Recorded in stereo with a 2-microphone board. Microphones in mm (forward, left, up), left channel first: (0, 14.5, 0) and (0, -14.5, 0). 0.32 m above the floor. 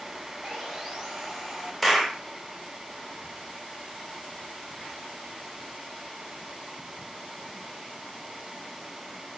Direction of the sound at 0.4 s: 10° right (ahead or behind).